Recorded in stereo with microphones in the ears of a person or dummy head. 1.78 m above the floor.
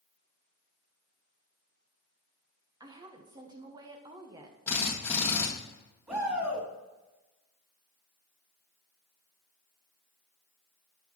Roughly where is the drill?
Centre.